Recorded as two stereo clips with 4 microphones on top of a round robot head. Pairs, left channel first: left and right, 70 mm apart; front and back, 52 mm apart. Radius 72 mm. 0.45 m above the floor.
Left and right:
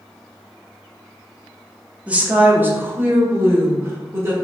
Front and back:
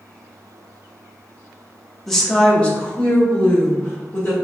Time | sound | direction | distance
2.1 | a woman speaking | 65° right | 1.0 m